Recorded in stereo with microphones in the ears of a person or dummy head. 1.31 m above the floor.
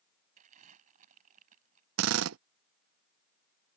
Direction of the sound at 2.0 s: 85° right.